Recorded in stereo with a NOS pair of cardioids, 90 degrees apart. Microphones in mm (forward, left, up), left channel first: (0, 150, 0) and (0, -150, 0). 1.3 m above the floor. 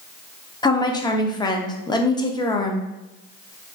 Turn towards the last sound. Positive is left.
turn(degrees=15)